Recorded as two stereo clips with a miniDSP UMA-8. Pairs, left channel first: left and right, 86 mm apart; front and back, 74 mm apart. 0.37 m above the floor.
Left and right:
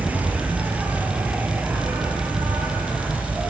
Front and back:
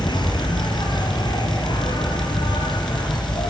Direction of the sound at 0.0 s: 15° right.